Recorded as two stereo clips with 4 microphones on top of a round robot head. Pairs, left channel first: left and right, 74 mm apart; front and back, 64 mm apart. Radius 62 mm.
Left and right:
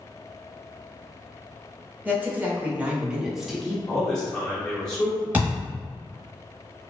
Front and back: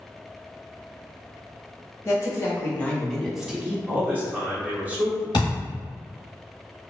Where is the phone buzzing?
I don't hear a phone buzzing.